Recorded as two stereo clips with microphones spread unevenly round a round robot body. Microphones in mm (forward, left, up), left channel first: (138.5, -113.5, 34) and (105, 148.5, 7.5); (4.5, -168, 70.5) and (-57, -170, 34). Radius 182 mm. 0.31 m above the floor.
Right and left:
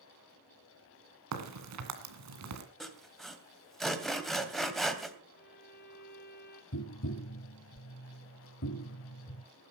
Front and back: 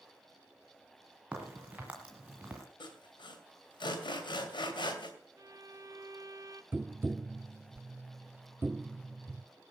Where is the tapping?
130° right, 0.6 m.